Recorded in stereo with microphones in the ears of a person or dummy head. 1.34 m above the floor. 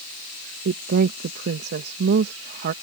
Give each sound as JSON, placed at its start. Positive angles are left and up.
{"t": 0.7, "sound": "a woman speaking", "side_deg": -55}